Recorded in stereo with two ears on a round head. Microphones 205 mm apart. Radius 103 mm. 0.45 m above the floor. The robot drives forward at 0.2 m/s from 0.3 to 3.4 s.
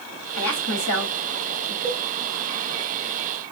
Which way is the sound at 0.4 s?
65° left (ahead or behind).